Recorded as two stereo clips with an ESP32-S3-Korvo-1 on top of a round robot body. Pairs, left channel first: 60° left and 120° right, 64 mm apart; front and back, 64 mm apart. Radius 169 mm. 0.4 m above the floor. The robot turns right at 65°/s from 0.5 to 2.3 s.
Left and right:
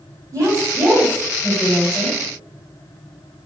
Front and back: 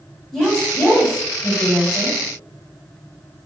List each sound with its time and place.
0.3 s a woman speaking: 85° right, 2.5 m; by 2.2 s 25° left, 2.5 m